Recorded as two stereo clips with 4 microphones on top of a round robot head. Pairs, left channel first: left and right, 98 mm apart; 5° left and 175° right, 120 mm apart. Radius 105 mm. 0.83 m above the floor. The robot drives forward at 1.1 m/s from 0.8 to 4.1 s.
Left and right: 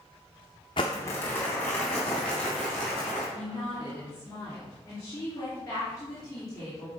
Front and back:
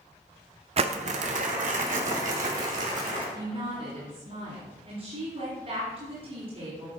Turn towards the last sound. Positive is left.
turn(degrees=160)